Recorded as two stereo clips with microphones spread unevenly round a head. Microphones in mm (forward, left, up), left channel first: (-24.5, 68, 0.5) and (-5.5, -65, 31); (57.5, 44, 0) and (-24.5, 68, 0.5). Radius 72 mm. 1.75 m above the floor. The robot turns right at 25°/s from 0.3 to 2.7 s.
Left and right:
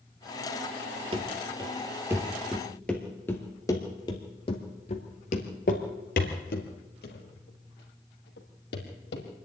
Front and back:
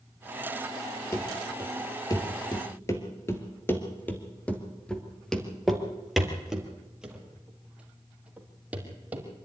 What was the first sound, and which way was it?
Running footsteps, 70° right.